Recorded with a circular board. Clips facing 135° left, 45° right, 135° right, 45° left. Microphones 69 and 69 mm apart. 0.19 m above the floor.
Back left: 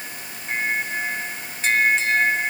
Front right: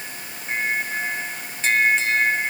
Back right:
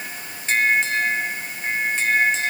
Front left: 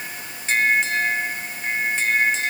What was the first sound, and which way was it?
Only background noise.